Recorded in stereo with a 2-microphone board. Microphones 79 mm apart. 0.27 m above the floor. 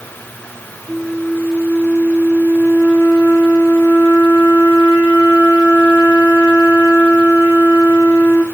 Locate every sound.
0.9 s a flute: 15° right (ahead or behind), 2.5 m